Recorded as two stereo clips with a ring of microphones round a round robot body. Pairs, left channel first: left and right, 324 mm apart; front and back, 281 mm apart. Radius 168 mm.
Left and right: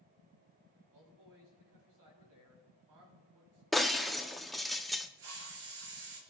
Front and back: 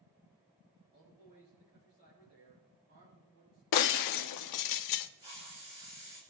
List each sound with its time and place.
0.9 s a man speaking: 120° right, 7.5 m
3.7 s breaking glass: straight ahead, 0.7 m
5.2 s a hiss: 105° right, 4 m